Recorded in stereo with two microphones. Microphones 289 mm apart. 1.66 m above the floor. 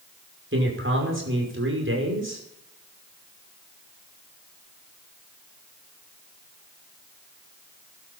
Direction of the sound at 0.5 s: 45° right (ahead or behind).